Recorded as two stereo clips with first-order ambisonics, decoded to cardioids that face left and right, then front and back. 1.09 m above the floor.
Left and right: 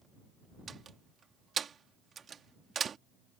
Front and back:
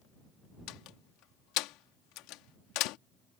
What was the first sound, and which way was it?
A door slam, 25° right.